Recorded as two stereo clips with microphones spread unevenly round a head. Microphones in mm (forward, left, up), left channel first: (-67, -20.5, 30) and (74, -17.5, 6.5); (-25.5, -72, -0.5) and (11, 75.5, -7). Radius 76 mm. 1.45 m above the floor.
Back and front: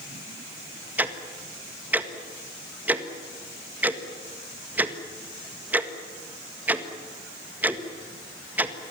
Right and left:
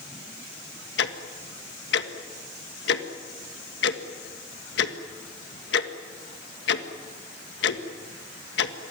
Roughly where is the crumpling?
I don't hear crumpling.